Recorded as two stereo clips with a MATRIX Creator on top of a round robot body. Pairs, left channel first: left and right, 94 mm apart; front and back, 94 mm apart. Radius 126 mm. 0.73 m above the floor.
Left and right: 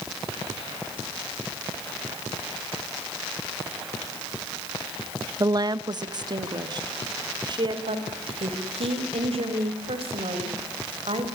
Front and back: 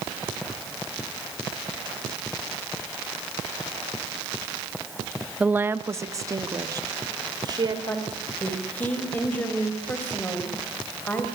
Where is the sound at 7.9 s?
75° right, 4.5 m.